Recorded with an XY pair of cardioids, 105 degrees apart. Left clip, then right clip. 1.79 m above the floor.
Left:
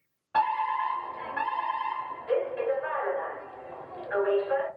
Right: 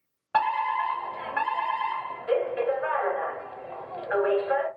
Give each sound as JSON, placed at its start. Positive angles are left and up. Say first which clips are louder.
{"t": 0.3, "sound": "a fire alarm", "louder": "right 1 dB", "azimuth_deg": -55, "distance_m": 1.2}